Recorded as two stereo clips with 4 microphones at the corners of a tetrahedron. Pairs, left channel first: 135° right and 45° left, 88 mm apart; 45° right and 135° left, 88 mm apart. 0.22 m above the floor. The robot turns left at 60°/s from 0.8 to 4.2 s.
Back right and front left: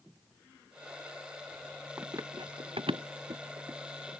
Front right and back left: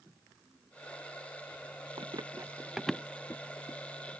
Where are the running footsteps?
110° left; by 4.1 s 45° right.